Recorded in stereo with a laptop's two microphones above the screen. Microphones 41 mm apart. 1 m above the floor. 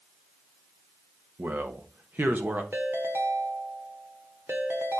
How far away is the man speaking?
About 1.3 m.